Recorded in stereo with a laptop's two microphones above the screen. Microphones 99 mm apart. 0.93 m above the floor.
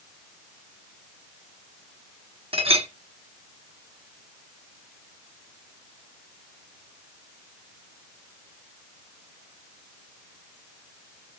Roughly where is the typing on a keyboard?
No typing on a keyboard in this recording.